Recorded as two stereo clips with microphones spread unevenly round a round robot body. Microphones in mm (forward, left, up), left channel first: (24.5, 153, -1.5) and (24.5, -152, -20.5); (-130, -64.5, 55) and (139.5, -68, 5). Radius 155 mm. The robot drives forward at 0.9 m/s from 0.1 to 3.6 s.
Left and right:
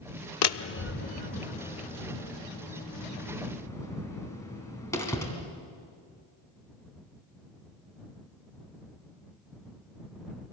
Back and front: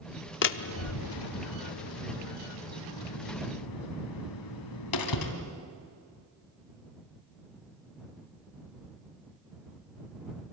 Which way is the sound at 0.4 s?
125° left.